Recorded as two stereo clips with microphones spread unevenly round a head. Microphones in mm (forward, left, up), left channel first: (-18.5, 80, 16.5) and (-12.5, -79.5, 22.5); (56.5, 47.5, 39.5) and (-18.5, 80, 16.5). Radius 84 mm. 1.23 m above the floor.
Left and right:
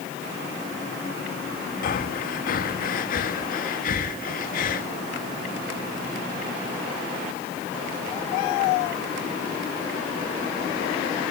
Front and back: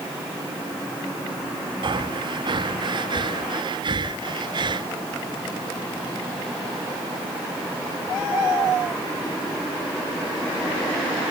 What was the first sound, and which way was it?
Breathing, 130° left.